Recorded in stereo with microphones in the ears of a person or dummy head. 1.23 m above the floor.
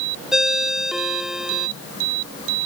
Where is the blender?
I don't hear a blender.